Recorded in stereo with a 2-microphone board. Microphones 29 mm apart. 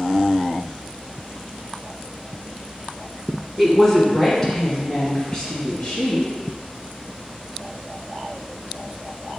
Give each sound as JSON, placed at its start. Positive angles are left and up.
{"t": 3.6, "sound": "a woman speaking", "side_deg": 0, "distance_m": 1.1}